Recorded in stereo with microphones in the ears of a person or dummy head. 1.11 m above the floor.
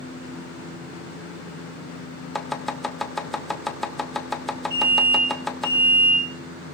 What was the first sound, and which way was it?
Chopping, centre (ahead or behind).